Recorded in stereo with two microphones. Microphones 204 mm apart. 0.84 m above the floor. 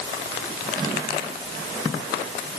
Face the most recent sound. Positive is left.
No sound to turn to.